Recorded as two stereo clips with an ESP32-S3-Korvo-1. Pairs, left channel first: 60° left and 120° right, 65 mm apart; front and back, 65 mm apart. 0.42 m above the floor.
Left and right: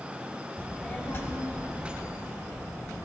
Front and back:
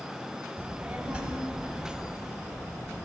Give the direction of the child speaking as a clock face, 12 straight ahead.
8 o'clock.